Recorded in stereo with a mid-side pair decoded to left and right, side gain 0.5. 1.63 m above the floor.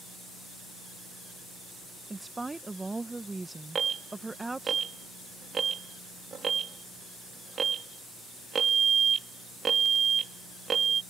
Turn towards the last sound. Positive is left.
turn(degrees=-40)